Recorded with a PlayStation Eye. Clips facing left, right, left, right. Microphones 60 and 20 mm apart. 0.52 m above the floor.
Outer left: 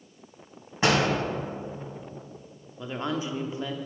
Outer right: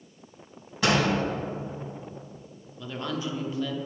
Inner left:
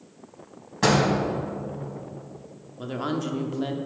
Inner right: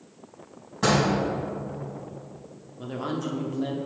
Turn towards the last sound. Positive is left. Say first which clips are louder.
# outer left 2 dB, inner left 2 dB
turn(degrees=25)  # may be behind; listen again after turning